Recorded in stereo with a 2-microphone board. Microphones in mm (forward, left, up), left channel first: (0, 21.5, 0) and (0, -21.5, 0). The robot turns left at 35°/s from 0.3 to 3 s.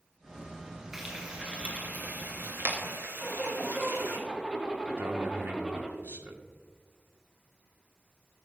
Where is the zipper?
20° right (ahead or behind), 4 m.